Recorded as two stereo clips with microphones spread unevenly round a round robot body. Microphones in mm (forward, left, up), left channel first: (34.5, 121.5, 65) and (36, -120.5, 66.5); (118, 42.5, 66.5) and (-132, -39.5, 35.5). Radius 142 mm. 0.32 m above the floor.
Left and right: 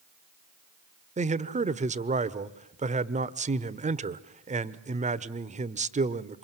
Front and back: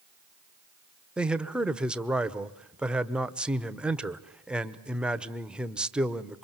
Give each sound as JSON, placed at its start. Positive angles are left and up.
{"t": 1.2, "sound": "a man speaking", "azimuth_deg": -90, "distance_m": 1.2}